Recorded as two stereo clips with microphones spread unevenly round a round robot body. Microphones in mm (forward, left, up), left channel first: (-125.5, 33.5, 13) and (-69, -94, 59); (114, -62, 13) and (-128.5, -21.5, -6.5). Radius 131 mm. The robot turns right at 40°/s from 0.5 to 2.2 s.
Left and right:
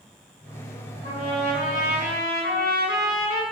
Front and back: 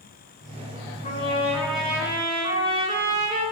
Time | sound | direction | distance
1.0 | a trumpet | 55° left | 6 m